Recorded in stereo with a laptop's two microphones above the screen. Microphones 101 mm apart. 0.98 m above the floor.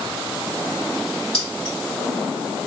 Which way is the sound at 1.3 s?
5° left (ahead or behind).